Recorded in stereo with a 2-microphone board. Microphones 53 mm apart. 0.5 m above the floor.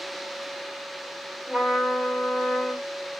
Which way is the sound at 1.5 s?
5° right (ahead or behind).